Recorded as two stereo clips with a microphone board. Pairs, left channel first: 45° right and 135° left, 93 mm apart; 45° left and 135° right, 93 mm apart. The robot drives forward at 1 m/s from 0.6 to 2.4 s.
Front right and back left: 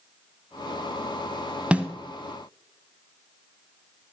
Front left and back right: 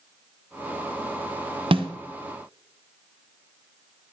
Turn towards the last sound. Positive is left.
turn(degrees=-160)